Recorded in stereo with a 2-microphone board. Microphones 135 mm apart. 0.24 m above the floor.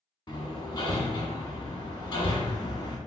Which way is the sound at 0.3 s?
35° left (ahead or behind).